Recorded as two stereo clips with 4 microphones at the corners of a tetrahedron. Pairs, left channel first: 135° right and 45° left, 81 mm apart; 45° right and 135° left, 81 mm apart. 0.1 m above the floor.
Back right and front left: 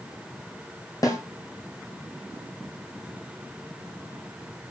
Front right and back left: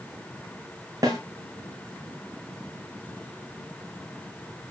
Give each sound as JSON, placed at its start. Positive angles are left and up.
{"t": 1.0, "sound": "a snare drum", "azimuth_deg": 180, "distance_m": 2.5}